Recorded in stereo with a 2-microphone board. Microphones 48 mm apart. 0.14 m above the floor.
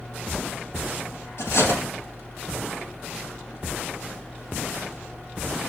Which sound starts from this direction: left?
Cutlery clinking, at 1.4 s.